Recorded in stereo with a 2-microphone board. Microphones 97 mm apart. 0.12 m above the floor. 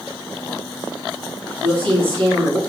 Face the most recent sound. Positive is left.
turn(degrees=20)  # may be behind; listen again after turning